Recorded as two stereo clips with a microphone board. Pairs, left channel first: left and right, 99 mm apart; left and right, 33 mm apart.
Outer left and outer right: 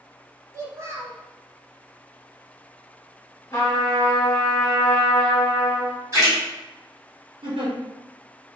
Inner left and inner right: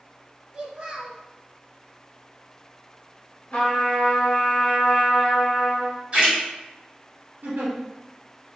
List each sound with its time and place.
0.5 s a child speaking: 30° right (ahead or behind), 0.6 m
3.5 s a trumpet: 30° left (ahead or behind), 1.0 m
6.1 s a splash: 35° right (ahead or behind), 1.7 m
7.4 s a giggle: 70° right (ahead or behind), 1.2 m